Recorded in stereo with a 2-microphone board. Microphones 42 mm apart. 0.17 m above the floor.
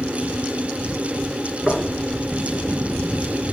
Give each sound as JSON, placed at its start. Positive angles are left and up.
{"t": 1.7, "sound": "knocking", "side_deg": 10, "distance_m": 2.5}